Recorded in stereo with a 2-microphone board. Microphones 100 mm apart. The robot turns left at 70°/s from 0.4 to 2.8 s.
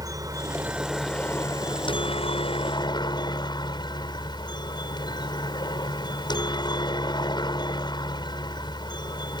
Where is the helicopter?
140° right; by 9.4 s 50° left.